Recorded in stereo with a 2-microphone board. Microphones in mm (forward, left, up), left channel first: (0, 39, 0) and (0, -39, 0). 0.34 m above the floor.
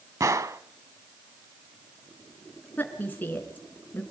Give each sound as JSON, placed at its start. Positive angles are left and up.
{"t": 0.2, "sound": "a gunshot", "side_deg": -45, "distance_m": 0.6}
{"t": 2.8, "sound": "a woman speaking", "side_deg": 25, "distance_m": 3.5}